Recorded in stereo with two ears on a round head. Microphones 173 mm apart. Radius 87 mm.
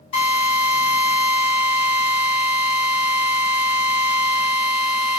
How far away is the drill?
About 1.9 m.